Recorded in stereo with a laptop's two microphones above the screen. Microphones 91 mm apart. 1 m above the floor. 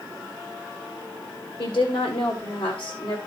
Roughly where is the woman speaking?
Left.